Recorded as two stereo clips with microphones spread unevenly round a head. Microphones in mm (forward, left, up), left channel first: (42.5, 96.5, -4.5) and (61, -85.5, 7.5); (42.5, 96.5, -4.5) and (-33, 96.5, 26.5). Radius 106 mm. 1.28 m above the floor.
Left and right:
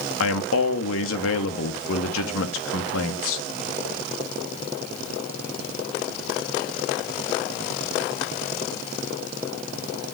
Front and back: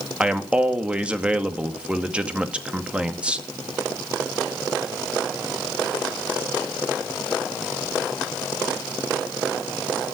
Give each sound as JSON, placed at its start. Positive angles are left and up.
{"t": 0.2, "sound": "a man speaking", "azimuth_deg": 105, "distance_m": 2.0}